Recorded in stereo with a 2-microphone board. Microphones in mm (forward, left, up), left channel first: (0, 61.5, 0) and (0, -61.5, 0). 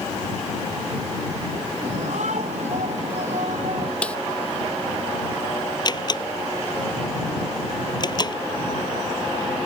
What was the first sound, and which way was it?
A shout, 80° right.